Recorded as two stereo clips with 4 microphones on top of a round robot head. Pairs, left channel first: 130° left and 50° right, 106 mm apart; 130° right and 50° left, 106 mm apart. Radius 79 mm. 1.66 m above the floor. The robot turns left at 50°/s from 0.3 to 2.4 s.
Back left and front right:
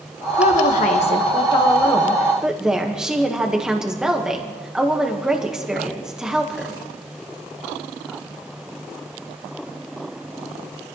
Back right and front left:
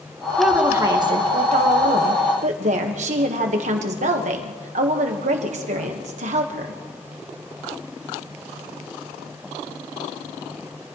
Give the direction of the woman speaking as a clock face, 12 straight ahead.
7 o'clock.